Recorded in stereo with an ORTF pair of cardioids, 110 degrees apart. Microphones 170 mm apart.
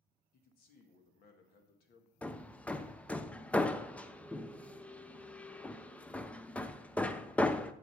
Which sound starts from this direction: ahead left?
A man speaking, at 0.3 s.